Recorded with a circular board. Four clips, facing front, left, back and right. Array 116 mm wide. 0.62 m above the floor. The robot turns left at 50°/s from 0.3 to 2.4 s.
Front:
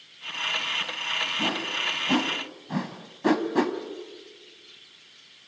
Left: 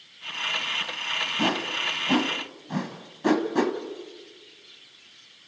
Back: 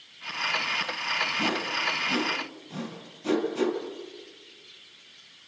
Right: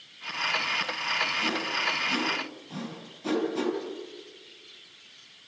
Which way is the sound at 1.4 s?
90° left.